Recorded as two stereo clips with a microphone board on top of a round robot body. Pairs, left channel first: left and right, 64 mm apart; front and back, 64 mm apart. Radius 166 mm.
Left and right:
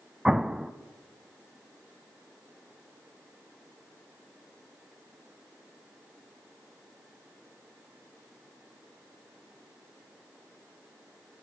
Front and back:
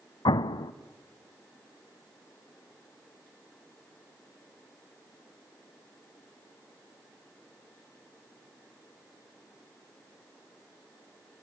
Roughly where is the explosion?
Ahead.